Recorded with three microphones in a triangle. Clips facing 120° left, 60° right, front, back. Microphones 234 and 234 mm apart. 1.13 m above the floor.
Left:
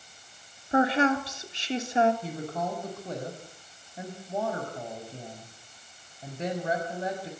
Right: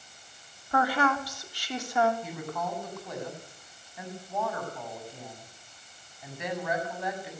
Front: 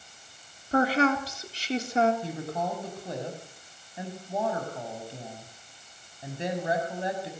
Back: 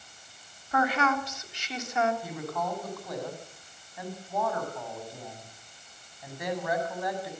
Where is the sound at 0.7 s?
55° left, 3 m.